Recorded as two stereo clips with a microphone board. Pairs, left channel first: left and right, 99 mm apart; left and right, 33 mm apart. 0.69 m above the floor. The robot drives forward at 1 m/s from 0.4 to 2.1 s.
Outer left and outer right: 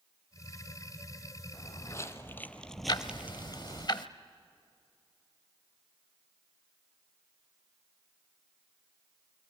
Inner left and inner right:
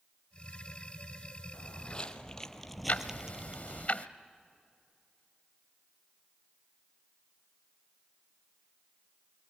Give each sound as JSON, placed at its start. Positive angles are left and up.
{"t": 1.5, "sound": "footsteps", "side_deg": 30, "distance_m": 1.9}
{"t": 2.9, "sound": "ticking", "side_deg": 45, "distance_m": 0.8}